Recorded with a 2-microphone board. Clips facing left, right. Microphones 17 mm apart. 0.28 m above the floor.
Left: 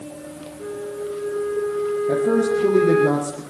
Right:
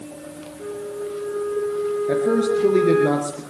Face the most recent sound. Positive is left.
turn(degrees=-45)  # may be behind; listen again after turning